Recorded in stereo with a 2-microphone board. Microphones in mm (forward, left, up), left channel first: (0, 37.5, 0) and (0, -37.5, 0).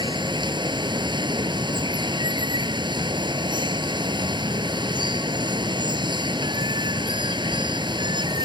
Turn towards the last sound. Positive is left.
turn(degrees=-90)